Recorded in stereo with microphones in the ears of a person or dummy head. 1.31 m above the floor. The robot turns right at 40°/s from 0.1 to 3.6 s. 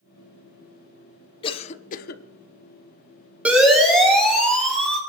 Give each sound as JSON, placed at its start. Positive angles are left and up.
{"t": 1.4, "sound": "a cough", "side_deg": 30, "distance_m": 0.9}
{"t": 3.5, "sound": "a siren", "side_deg": -10, "distance_m": 4.5}